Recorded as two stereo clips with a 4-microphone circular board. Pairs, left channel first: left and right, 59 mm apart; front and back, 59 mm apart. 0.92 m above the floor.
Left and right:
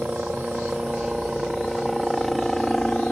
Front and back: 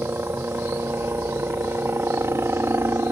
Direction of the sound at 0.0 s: 155° right.